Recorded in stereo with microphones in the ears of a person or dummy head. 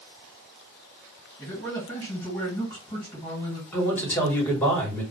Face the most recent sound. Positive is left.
turn(degrees=15)  # may be behind; listen again after turning